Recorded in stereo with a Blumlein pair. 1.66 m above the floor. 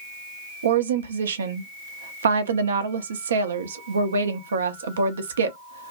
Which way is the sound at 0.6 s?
65° right.